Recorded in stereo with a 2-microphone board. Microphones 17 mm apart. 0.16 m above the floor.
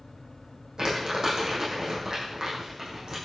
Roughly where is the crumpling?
Right.